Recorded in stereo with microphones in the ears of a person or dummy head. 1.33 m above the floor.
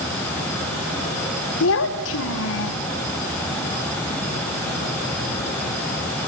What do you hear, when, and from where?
1.6 s a child speaking: 65° left (ahead or behind), 0.6 m